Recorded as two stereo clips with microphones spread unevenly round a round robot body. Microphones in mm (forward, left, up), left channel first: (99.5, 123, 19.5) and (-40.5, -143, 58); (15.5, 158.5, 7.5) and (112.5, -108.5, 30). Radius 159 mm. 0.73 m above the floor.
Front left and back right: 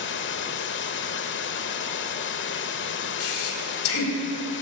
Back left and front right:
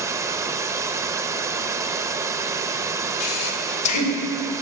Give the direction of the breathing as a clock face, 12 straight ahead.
9 o'clock.